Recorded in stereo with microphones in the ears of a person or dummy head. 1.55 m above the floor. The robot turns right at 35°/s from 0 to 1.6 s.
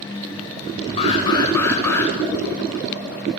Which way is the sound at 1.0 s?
35° left (ahead or behind).